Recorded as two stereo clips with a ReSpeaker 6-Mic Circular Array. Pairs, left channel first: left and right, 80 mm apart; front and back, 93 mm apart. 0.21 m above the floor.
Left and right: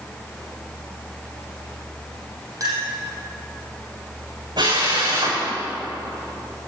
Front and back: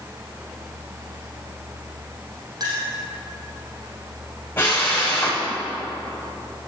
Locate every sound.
2.6 s a clink: 135° right, 5.5 m
4.6 s a drill: 70° right, 6 m